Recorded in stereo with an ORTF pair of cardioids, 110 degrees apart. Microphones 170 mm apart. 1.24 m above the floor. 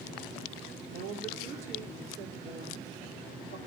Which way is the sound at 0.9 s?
65° right.